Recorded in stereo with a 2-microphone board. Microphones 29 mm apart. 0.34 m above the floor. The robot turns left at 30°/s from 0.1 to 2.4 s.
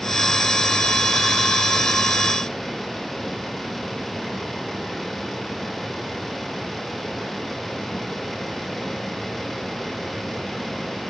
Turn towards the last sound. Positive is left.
No sound to turn to.